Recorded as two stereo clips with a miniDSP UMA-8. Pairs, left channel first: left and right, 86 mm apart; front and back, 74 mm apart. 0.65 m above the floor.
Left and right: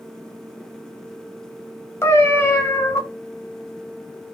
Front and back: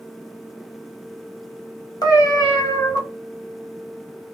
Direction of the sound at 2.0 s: 30° left.